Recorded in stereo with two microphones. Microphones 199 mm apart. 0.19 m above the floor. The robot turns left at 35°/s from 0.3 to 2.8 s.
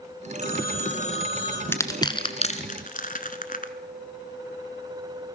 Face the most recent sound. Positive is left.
turn(degrees=45)  # may be behind; listen again after turning